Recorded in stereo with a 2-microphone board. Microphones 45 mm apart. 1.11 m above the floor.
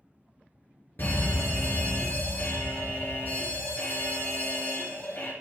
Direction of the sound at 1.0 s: 50° left (ahead or behind).